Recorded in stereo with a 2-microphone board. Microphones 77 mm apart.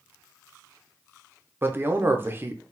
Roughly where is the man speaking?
Right.